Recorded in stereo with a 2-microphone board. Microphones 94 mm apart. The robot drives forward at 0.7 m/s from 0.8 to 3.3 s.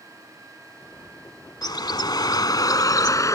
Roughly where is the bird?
Left.